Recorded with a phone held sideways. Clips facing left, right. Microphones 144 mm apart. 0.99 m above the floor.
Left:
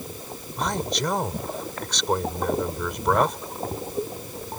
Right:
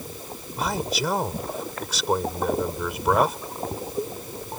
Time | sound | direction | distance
0.6 | a man speaking | 5° right (ahead or behind) | ?